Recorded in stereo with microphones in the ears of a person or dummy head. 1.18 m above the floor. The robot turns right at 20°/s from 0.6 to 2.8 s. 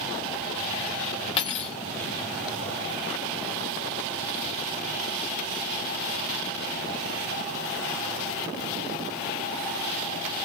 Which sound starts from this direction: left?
Cutlery clinking, at 1.4 s.